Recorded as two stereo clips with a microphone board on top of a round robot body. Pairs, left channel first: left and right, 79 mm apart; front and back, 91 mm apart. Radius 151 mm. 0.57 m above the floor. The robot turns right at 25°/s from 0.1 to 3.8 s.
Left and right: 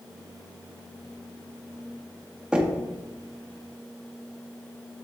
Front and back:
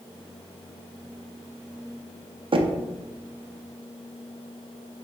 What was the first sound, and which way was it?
Knocking, 165° right.